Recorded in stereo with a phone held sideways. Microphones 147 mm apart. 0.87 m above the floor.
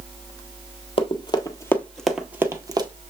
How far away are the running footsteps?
About 1.0 m.